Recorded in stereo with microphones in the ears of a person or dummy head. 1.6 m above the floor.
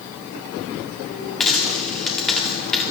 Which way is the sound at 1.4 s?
5° left (ahead or behind).